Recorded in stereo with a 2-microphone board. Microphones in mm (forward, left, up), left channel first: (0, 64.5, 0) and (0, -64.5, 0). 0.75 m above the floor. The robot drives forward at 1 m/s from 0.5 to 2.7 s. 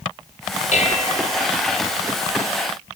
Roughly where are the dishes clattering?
Left.